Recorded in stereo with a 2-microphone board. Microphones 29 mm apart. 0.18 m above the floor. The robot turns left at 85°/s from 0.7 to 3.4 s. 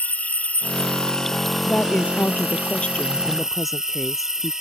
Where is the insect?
70° left; by 4.6 s 160° right.